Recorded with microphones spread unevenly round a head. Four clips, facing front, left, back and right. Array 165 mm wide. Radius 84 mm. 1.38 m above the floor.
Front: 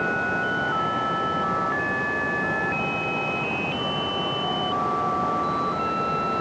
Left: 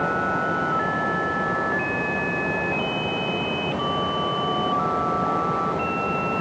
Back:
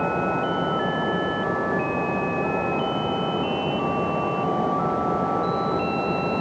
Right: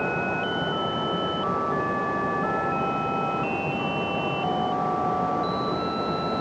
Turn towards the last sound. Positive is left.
No sound to turn to.